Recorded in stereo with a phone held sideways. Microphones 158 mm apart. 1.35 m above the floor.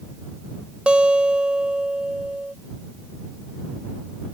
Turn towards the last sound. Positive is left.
turn(degrees=-5)  # may be behind; listen again after turning